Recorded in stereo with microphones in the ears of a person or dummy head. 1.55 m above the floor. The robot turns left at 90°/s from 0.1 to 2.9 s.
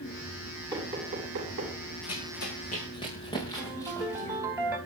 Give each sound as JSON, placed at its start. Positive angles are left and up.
{"t": 0.7, "sound": "knocking", "side_deg": -15, "distance_m": 9.0}
{"t": 2.0, "sound": "running footsteps", "side_deg": 65, "distance_m": 6.0}
{"t": 3.6, "sound": "a ringtone", "side_deg": -10, "distance_m": 5.0}